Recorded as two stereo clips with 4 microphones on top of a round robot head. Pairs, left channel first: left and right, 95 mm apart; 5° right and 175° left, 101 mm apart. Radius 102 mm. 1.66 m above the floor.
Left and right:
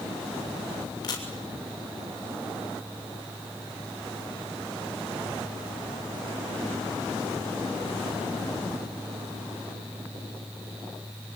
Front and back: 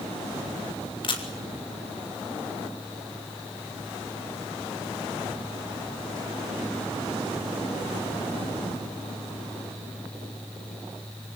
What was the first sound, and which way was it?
A camera shutter, 35° left.